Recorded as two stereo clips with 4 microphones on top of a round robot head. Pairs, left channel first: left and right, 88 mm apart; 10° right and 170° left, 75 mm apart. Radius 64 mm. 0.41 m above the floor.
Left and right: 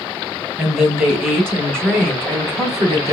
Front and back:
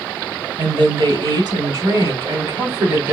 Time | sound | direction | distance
0.6 | a woman speaking | 165° right | 3 m